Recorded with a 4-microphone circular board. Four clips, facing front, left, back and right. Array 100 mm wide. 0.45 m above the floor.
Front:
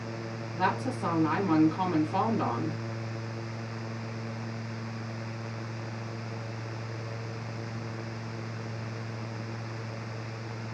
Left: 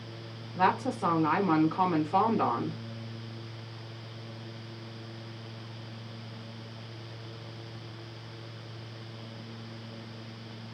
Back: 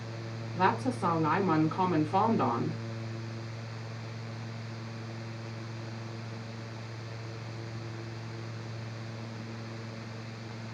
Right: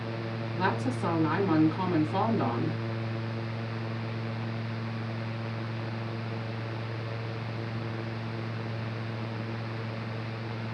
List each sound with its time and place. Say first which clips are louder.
0.6 s a woman speaking: left 3 dB, back 1 dB; 110° left, 0.8 m